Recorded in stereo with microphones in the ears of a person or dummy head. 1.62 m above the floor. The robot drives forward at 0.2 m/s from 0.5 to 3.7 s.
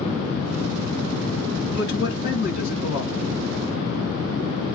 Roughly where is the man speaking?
Left.